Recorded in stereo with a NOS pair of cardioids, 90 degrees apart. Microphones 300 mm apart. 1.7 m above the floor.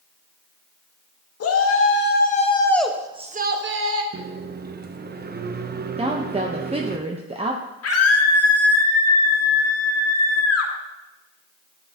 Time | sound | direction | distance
1.4 | a shout | 50° left | 1.7 m
4.1 | a microwave | 30° right | 0.7 m
6.0 | a woman speaking | 20° right | 0.8 m
7.8 | a scream | 50° left | 2 m